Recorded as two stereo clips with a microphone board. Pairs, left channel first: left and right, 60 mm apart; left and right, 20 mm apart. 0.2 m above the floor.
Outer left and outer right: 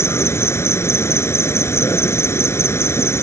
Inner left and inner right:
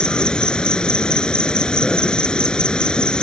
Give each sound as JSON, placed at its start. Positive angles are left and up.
{"t": 0.0, "sound": "an insect", "side_deg": 45}